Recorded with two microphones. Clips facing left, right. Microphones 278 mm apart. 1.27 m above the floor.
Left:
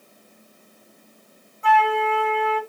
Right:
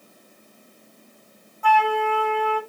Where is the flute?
25° left (ahead or behind), 2.5 m.